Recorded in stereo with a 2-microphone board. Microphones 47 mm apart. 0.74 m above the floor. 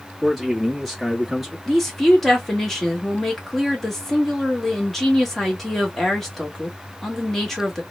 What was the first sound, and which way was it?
A man speaking, centre (ahead or behind).